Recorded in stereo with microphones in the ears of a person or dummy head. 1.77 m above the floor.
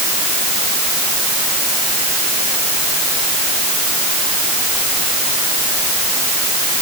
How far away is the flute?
No flute in this recording.